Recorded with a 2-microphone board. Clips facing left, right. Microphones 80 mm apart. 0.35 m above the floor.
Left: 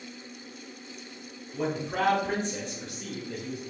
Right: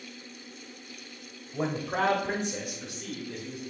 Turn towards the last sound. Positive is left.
turn(degrees=25)  # may be behind; listen again after turning